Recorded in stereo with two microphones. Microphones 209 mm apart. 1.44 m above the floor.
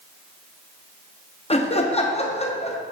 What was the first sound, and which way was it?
Laughter, 30° left (ahead or behind).